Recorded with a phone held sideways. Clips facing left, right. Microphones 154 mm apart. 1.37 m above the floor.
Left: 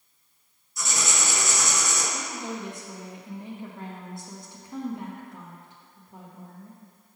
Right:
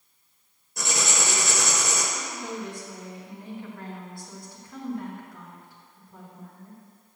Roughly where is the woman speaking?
Left.